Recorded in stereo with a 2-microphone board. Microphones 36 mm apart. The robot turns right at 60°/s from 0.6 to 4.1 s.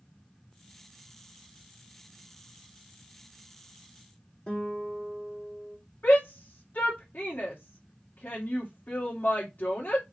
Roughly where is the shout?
Left.